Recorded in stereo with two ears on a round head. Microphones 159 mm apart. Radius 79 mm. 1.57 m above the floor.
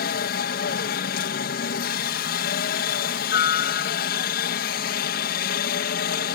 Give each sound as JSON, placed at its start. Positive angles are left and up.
{"t": 0.0, "sound": "a helicopter", "side_deg": 55}